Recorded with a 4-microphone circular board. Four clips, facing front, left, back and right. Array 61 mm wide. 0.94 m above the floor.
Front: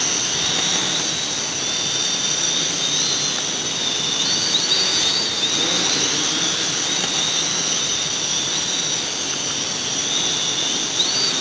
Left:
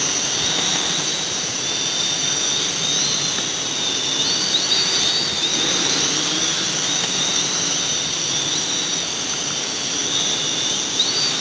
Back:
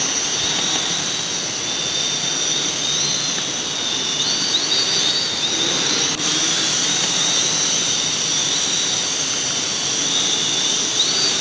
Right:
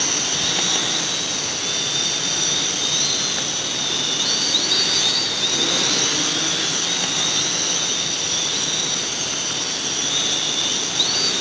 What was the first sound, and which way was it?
Only background noise.